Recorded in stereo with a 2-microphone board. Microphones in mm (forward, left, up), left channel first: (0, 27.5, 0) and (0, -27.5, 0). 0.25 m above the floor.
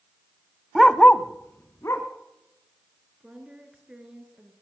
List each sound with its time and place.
0.8 s a dog barking: 10° right (ahead or behind), 0.5 m; by 2.1 s 55° left (ahead or behind), 1.7 m
3.2 s a woman speaking: 20° right (ahead or behind), 3.5 m